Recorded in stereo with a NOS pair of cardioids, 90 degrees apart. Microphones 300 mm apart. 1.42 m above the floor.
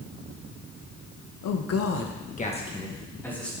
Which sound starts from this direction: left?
A man speaking, at 1.4 s.